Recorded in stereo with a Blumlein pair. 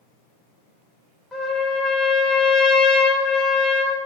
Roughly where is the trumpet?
Ahead.